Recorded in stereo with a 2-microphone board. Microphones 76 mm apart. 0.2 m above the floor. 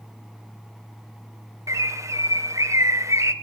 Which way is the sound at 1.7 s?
40° right (ahead or behind).